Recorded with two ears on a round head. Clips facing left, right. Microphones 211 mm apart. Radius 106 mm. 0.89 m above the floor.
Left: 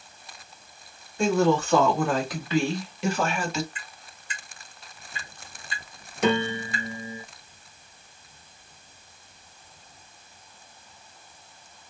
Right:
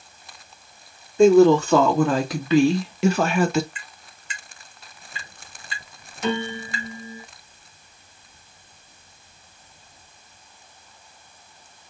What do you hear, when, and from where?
1.2 s a woman speaking: 70° right (ahead or behind), 1.9 m; by 3.6 s 45° right (ahead or behind), 0.8 m
3.8 s tapping: 60° right (ahead or behind), 1.1 m
6.2 s a piano: 50° left (ahead or behind), 0.6 m